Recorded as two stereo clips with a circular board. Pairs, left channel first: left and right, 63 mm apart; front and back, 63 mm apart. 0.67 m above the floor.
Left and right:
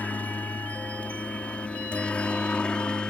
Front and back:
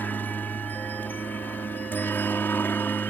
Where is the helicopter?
40° left; by 3.1 s 25° left.